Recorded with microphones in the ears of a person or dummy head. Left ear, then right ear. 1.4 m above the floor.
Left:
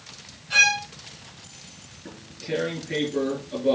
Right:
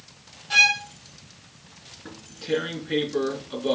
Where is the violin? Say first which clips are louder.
Right 1 dB; 60° right (ahead or behind), 6 m.